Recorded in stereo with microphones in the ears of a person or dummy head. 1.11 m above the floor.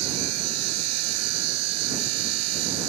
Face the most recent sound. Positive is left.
turn(degrees=-85)